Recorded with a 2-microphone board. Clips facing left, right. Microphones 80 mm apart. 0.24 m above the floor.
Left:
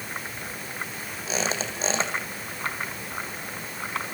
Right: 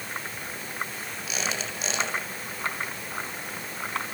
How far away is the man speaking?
I don't hear a man speaking.